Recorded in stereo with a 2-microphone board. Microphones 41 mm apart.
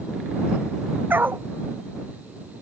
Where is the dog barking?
60° right (ahead or behind).